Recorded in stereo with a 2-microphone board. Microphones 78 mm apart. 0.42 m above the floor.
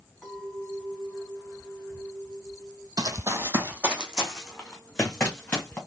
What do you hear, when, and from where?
0.2 s a clink: 5° left (ahead or behind), 3 m
3.0 s running footsteps: 50° right (ahead or behind), 0.9 m; by 5.8 s 15° left (ahead or behind), 2.5 m